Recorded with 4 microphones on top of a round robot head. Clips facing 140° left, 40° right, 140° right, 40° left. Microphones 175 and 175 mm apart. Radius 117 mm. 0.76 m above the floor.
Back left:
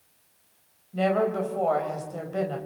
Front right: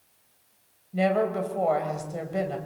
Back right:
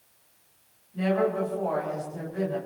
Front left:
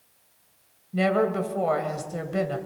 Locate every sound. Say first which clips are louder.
0.9 s a woman speaking: even, front left 2 dB; 40° left, 3.5 m